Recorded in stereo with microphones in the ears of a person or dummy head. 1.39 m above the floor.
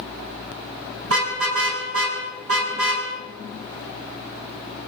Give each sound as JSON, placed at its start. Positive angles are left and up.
{"t": 1.0, "sound": "a car horn", "side_deg": -85, "distance_m": 7.0}